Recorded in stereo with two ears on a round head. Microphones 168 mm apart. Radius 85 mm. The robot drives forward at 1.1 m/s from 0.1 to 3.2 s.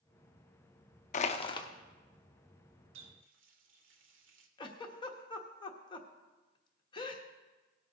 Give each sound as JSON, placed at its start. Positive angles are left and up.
{"t": 1.1, "sound": "crushing", "side_deg": 40, "distance_m": 0.6}
{"t": 2.9, "sound": "a running tap", "side_deg": -85, "distance_m": 1.3}
{"t": 4.6, "sound": "a giggle", "side_deg": 25, "distance_m": 1.0}